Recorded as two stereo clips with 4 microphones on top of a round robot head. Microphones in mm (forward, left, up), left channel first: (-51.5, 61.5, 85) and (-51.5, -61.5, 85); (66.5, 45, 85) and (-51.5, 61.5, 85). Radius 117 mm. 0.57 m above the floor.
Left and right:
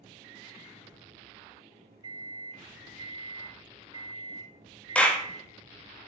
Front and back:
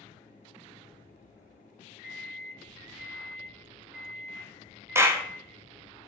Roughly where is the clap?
Behind left.